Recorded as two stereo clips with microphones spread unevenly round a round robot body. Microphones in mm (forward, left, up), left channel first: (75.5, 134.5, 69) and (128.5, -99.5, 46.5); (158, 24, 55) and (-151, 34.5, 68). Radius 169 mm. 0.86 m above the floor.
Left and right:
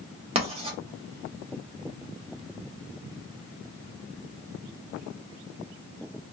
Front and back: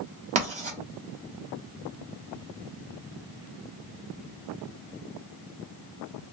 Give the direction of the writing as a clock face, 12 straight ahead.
4 o'clock.